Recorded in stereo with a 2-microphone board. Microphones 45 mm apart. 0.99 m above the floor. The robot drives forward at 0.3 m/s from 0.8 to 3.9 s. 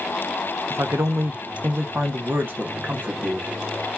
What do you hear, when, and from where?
0.7 s a man speaking: 70° right (ahead or behind), 0.7 m; by 3.5 s 35° right (ahead or behind), 1.2 m